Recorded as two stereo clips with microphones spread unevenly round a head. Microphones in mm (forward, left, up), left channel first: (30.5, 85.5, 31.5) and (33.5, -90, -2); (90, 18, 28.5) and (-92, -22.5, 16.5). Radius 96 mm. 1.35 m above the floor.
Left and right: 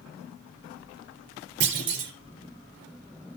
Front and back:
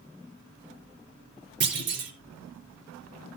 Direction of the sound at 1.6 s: 130° right.